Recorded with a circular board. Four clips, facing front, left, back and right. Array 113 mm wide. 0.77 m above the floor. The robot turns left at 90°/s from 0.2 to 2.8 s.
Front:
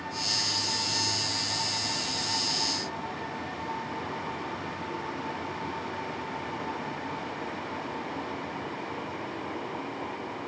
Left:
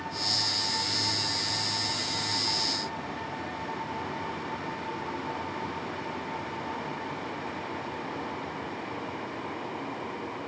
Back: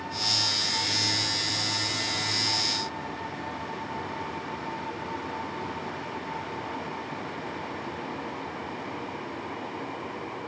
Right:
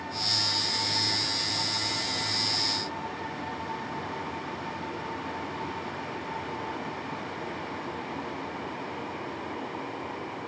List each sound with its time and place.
Only background noise.